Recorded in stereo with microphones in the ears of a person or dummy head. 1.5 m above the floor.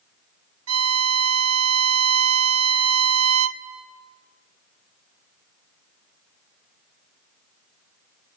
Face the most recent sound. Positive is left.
turn(degrees=-80)